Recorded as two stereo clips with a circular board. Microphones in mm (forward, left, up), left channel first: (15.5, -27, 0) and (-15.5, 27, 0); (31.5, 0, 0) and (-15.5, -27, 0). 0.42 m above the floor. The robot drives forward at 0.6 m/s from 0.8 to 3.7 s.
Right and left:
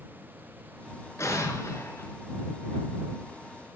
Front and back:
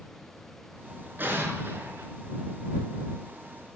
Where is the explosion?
100° right, 5 m; by 2.1 s 105° right, 5 m.